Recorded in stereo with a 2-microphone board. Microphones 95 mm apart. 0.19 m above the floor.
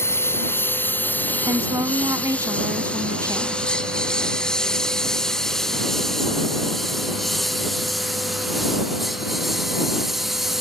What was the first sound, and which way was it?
A lawn mower, 25° left (ahead or behind).